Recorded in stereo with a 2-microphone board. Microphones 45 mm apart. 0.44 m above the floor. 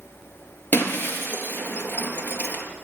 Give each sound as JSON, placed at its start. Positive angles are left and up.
{"t": 0.7, "sound": "breaking glass", "side_deg": 45, "distance_m": 4.0}